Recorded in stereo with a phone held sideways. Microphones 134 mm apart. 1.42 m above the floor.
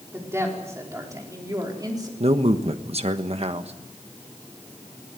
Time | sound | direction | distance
0.1 | a woman speaking | 20° right (ahead or behind) | 5 m
2.2 | a man speaking | 55° right (ahead or behind) | 1.3 m